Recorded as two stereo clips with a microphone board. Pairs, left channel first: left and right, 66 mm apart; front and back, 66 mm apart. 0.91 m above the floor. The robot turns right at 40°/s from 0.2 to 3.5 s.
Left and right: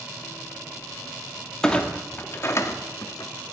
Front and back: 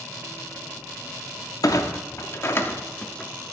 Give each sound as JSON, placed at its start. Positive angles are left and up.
{"t": 1.6, "sound": "a clunk", "azimuth_deg": 10, "distance_m": 0.6}